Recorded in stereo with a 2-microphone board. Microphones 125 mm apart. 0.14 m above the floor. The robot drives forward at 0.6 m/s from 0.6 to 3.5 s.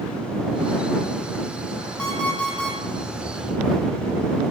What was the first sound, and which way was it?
An alarm clock, 5° left (ahead or behind).